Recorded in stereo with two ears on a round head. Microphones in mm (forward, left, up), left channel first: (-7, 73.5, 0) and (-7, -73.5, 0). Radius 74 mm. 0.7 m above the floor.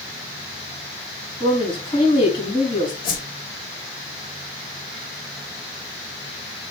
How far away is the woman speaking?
About 5 m.